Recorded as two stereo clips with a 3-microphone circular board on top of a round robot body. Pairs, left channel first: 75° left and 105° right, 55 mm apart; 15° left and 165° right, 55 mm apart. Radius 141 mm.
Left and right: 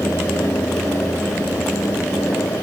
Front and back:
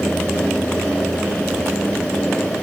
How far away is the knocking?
I don't hear knocking.